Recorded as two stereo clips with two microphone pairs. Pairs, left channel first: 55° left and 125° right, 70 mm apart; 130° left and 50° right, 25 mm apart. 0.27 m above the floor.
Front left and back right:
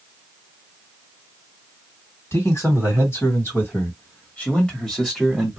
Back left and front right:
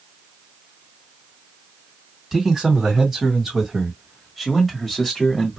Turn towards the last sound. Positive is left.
turn(degrees=160)